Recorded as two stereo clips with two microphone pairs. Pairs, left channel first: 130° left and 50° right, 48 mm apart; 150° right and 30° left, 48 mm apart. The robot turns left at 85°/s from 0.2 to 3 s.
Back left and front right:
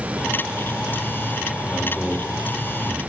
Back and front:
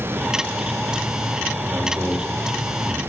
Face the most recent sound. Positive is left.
turn(degrees=-35)